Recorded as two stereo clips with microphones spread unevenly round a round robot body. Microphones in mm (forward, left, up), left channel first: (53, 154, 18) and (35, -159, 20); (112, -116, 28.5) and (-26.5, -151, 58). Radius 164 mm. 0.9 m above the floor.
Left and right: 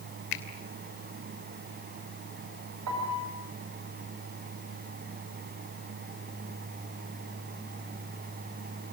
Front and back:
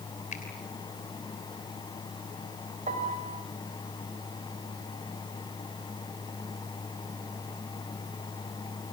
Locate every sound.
0.3 s a finger snap: 70° left, 3 m
2.9 s a piano: 135° right, 6 m